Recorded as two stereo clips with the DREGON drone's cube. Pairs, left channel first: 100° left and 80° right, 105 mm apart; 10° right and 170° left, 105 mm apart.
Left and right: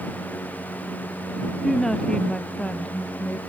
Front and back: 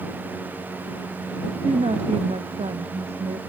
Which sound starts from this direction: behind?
A woman speaking, at 1.6 s.